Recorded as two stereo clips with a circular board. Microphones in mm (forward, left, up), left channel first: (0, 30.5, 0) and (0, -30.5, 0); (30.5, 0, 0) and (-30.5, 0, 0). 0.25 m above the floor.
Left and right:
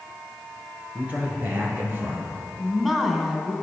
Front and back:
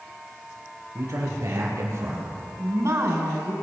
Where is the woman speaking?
175° right, 2 m.